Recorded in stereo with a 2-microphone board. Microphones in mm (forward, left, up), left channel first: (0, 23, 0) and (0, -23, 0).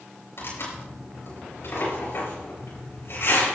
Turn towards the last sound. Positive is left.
turn(degrees=55)  # may be behind; listen again after turning